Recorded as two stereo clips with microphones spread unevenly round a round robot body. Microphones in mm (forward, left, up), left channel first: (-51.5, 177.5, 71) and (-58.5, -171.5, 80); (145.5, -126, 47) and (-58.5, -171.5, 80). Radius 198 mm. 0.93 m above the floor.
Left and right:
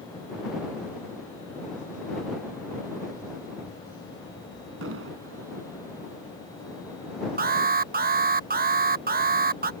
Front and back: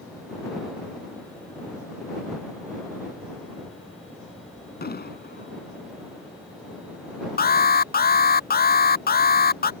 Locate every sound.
4.8 s an explosion: 35° right
7.4 s an alarm: 25° right